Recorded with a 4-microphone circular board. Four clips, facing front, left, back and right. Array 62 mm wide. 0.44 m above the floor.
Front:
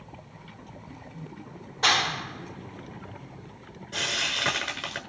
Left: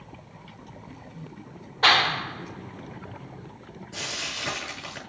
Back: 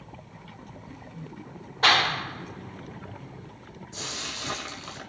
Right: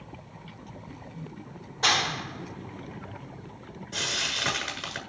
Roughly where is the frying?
Ahead.